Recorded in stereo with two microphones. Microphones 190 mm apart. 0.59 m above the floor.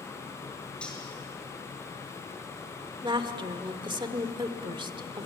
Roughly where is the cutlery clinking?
Centre.